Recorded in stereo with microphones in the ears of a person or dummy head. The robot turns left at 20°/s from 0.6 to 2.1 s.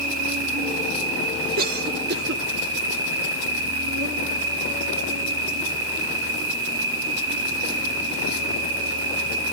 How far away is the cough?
About 1.8 m.